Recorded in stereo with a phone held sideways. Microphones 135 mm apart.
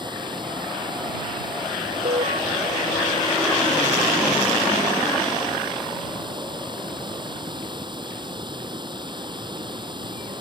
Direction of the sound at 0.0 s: 35° right (ahead or behind).